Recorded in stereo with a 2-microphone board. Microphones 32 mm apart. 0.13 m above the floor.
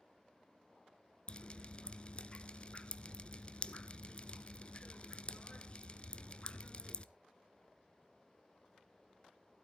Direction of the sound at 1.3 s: 35° left (ahead or behind).